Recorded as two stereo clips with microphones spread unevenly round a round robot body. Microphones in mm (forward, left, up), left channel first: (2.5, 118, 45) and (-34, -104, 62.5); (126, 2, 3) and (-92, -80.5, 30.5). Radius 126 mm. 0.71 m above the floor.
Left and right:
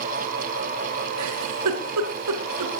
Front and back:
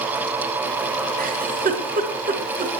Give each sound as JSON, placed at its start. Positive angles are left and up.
{"t": 1.2, "sound": "a giggle", "azimuth_deg": -105, "distance_m": 3.5}